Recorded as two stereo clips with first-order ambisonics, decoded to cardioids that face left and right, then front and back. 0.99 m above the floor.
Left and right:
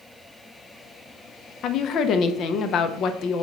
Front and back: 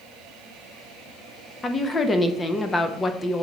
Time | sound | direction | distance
1.6 | a woman speaking | 65° left | 0.6 m